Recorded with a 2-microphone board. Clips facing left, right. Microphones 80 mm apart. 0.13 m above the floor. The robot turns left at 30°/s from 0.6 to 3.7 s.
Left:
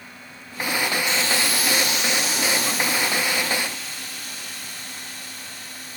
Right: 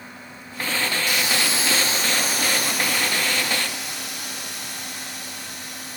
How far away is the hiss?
About 4 m.